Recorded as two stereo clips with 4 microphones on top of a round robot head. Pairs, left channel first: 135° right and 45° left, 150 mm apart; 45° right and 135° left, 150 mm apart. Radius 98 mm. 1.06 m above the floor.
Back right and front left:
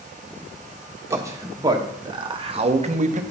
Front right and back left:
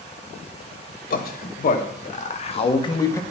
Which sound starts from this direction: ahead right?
A man speaking, at 1.1 s.